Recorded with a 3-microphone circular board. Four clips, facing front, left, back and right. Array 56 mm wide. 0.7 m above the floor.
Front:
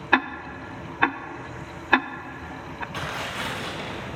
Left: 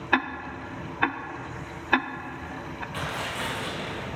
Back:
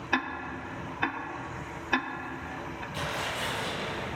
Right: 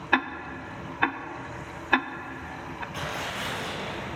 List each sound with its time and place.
0.1 s ticking: straight ahead, 0.5 m
2.9 s tearing paper: 20° left, 6 m